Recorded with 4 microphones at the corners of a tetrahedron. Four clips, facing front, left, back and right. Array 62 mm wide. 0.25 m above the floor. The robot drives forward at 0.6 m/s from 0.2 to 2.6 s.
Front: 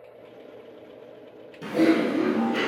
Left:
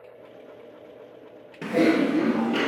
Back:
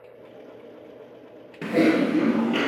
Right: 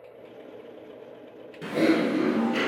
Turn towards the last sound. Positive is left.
turn(degrees=160)